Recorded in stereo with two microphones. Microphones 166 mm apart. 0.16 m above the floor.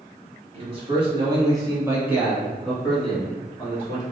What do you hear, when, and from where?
0.5 s a man speaking: 35° right (ahead or behind), 1.9 m; by 4.0 s 15° left (ahead or behind), 2 m